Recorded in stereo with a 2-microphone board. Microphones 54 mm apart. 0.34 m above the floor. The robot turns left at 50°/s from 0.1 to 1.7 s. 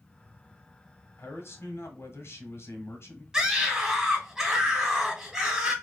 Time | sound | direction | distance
1.2 | a man speaking | 45° left (ahead or behind) | 1.3 m
3.3 | a scream | 15° right (ahead or behind) | 1.4 m